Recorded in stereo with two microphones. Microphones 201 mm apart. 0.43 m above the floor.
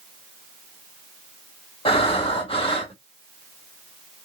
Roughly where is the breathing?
Left.